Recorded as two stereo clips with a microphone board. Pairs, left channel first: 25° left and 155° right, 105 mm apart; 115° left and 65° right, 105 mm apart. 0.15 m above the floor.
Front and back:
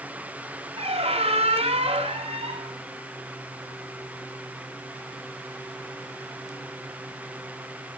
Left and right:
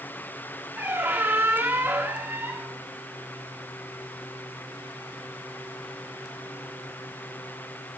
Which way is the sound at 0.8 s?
135° right.